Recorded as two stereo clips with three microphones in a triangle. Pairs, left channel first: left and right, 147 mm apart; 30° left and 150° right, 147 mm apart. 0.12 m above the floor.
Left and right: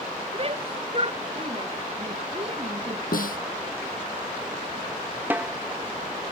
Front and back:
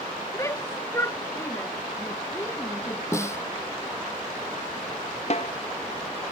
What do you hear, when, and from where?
0.3 s a shout: 40° right
3.1 s a snare drum: 100° left
5.3 s a snare drum: 15° right